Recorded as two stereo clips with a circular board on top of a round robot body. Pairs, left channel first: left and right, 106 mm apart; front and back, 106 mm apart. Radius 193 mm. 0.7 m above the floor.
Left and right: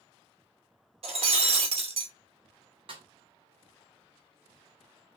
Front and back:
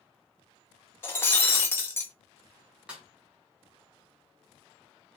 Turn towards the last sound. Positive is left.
turn(degrees=-100)